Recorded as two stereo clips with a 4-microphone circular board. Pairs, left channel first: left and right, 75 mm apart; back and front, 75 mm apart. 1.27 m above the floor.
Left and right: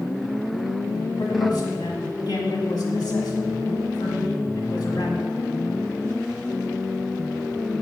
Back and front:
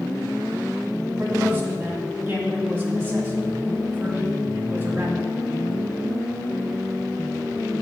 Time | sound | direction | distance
1.2 | a man speaking | 65° left | 1.4 m